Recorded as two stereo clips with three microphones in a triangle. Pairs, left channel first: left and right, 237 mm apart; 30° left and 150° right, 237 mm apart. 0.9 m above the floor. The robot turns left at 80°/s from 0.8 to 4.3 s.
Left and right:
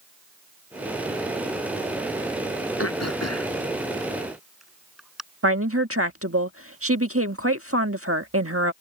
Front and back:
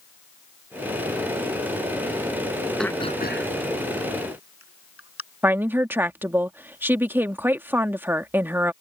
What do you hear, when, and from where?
2.8 s throat clearing: 120° left; by 5.2 s straight ahead
5.4 s a woman speaking: 70° right